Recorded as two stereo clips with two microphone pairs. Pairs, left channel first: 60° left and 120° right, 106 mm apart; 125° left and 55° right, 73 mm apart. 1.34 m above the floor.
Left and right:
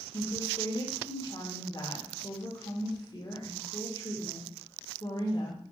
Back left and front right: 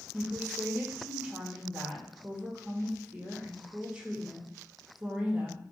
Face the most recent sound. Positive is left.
turn(degrees=15)